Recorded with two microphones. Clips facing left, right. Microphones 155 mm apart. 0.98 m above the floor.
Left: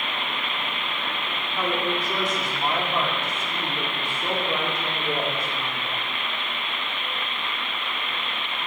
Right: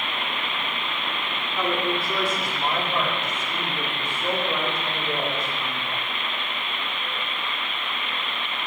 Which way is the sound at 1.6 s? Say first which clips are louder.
Right 1 dB; 10° left (ahead or behind).